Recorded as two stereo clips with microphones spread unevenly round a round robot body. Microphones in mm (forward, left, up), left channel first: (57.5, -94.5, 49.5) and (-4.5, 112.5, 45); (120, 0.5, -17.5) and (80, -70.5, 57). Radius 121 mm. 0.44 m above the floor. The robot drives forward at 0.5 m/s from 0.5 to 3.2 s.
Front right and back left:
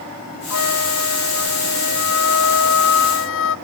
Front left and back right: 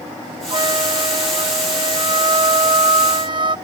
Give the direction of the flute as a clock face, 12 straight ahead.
3 o'clock.